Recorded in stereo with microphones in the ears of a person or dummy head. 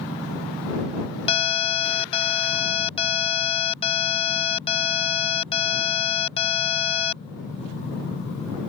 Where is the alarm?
35° left (ahead or behind).